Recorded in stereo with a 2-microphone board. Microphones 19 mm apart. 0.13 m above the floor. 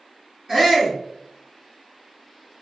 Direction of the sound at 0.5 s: 30° right (ahead or behind).